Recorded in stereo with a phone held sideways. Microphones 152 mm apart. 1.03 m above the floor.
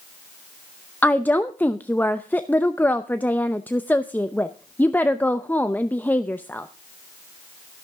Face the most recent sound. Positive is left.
turn(degrees=10)  # may be behind; listen again after turning